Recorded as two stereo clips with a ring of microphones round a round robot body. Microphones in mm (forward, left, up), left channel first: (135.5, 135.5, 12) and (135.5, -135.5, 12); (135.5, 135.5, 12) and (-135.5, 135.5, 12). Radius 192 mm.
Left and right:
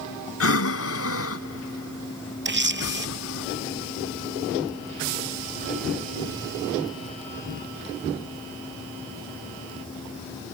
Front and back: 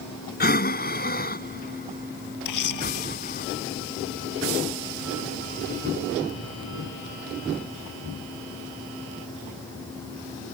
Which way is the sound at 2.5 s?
40° right.